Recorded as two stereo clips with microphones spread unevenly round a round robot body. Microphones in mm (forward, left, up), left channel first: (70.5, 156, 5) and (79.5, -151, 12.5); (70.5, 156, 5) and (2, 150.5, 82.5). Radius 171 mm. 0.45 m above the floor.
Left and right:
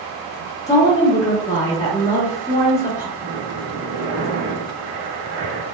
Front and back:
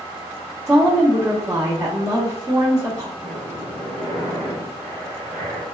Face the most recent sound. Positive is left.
turn(degrees=-115)